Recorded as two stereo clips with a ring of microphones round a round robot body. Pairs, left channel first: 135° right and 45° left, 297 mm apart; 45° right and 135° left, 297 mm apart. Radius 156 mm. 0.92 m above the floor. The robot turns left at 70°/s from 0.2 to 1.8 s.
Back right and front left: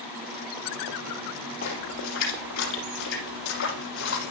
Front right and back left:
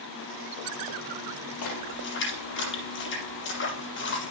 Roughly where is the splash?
Right.